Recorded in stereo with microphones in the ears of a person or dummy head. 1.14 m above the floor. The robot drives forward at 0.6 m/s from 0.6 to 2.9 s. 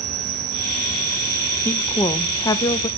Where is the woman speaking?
10° left (ahead or behind), 1.4 m; by 2.9 s 25° left (ahead or behind), 0.8 m.